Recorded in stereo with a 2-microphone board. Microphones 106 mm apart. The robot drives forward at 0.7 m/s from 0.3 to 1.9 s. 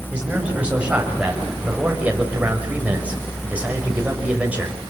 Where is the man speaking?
10° right (ahead or behind), 8 m; by 4.8 s 15° right (ahead or behind), 6.5 m.